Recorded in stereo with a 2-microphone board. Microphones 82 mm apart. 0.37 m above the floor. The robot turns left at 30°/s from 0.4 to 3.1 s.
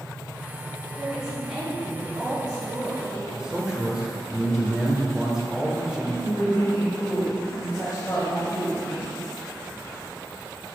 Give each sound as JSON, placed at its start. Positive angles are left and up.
{"t": 1.0, "sound": "a woman speaking", "azimuth_deg": 5, "distance_m": 1.8}
{"t": 3.3, "sound": "a man speaking", "side_deg": -10, "distance_m": 0.9}
{"t": 6.2, "sound": "a woman speaking", "side_deg": 30, "distance_m": 1.4}